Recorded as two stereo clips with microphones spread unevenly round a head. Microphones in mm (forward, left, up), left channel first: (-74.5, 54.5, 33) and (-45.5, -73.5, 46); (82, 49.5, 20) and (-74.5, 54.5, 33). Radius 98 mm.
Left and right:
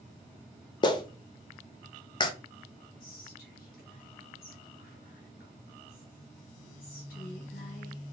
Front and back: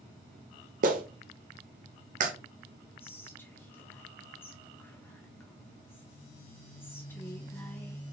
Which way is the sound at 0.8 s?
160° left.